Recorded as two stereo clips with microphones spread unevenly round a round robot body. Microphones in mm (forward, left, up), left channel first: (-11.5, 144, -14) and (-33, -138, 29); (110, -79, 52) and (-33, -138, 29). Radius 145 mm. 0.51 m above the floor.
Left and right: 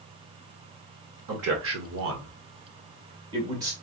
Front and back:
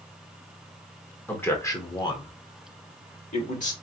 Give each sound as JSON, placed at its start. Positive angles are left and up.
{"t": 1.3, "sound": "a man speaking", "azimuth_deg": -60, "distance_m": 1.8}